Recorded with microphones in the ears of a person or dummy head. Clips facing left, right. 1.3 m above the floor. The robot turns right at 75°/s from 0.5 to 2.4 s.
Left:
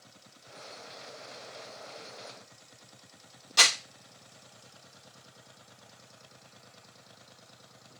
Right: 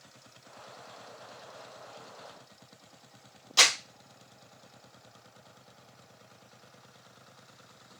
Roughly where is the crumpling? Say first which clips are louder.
Right 1 dB; centre.